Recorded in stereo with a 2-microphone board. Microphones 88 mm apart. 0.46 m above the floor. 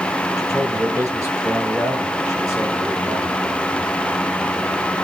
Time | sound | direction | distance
0.4 | a man speaking | 35° right (ahead or behind) | 7.5 m